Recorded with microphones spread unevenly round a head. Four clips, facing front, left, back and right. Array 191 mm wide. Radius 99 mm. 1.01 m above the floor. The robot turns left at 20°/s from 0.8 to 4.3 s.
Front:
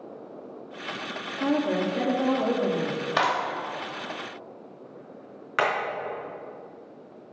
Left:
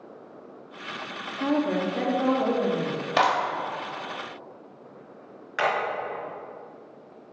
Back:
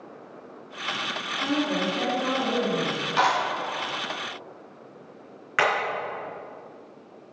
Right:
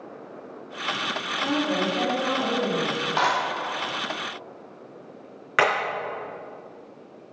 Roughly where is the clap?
Ahead left.